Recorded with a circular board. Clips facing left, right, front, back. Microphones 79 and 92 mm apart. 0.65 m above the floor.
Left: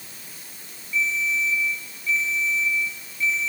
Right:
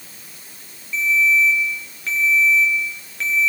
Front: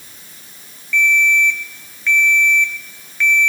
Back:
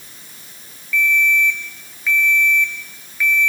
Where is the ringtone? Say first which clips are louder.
Right 7 dB, front 2 dB; 95° right, 6.5 m.